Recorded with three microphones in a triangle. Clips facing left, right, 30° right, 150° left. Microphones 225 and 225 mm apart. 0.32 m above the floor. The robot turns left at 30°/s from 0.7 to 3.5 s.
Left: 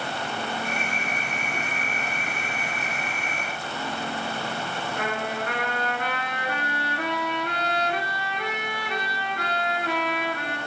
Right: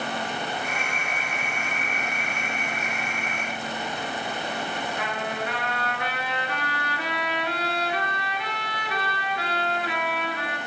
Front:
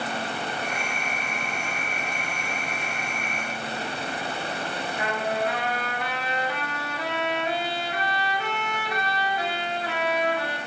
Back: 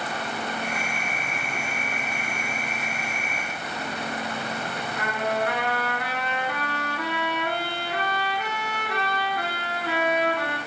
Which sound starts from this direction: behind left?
A trumpet, at 5.0 s.